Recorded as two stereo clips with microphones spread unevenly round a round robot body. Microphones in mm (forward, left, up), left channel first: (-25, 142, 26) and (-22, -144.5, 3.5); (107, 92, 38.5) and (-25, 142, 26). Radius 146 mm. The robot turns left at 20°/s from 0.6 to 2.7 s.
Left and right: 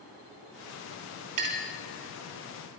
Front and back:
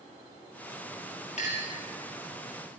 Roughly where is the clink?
Right.